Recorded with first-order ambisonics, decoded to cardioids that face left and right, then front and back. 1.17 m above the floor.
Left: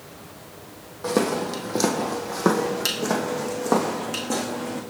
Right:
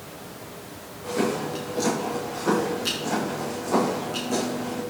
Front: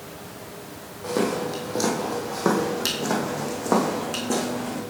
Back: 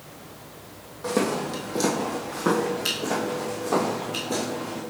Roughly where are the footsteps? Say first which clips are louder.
Left 3 dB, even; left.